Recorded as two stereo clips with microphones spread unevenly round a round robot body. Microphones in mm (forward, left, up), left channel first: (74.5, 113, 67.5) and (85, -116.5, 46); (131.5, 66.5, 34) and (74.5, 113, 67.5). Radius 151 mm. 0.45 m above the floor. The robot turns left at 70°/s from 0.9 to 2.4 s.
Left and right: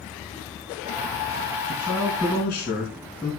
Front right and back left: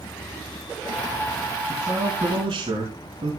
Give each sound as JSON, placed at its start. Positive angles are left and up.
{"t": 1.7, "sound": "a man speaking", "azimuth_deg": -130, "distance_m": 4.0}